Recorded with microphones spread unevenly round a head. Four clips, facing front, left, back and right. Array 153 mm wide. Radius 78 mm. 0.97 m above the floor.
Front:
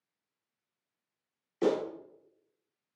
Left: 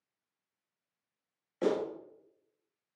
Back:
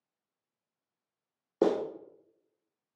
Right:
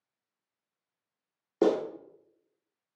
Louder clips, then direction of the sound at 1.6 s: Right 6 dB, back 1 dB; 140° right.